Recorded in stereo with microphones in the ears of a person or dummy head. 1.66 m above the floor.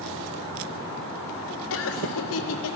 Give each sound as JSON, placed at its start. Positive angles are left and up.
{"t": 1.7, "sound": "laughter", "side_deg": 70, "distance_m": 0.7}